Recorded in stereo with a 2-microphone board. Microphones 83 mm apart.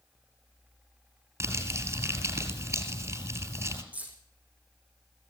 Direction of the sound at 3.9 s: 15° right (ahead or behind).